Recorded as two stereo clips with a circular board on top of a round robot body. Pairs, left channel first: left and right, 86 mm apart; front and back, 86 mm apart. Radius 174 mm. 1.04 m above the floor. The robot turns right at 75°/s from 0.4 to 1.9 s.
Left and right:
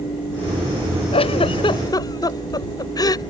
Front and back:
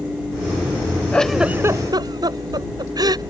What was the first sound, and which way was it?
A giggle, 80° left.